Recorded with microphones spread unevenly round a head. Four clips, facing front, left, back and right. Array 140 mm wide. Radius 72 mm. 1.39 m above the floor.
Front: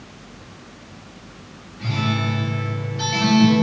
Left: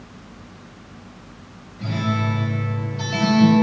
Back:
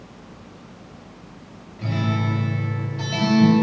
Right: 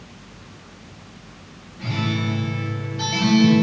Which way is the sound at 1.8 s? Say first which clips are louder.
Left 1 dB, front 1 dB; 170° left.